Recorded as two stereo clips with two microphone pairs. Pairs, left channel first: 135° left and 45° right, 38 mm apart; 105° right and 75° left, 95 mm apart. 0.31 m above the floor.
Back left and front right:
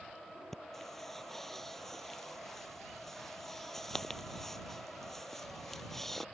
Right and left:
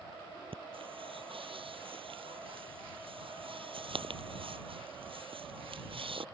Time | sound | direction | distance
0.5 | breathing | 55° left | ?